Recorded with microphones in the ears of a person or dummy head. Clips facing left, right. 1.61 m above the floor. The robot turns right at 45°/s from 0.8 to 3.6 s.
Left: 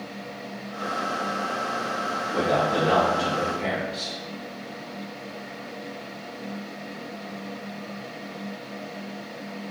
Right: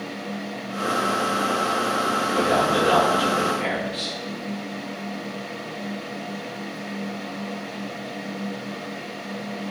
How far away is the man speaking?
About 1.2 m.